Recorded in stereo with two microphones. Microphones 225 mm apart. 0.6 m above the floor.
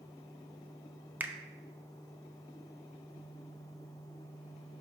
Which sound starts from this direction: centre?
A finger snap, at 1.2 s.